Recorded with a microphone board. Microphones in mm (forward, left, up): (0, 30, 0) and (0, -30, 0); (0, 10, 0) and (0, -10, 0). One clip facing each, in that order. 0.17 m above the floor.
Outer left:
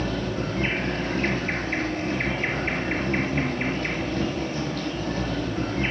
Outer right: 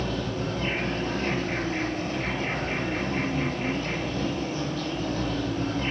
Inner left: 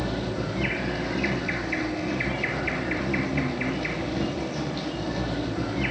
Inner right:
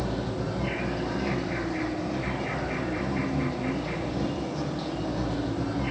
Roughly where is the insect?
Left.